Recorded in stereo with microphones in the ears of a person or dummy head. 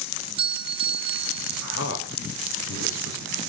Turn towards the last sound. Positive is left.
turn(degrees=70)  # may be behind; listen again after turning